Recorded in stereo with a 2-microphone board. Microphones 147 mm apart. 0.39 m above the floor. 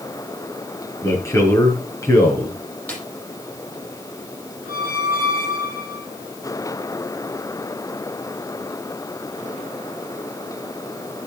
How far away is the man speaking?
About 5 m.